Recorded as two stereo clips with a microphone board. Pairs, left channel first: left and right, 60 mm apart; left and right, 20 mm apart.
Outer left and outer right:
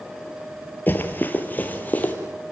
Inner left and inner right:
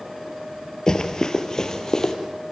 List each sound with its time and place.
0.9 s running footsteps: 35° left (ahead or behind), 2 m; by 2.1 s 25° left (ahead or behind), 3 m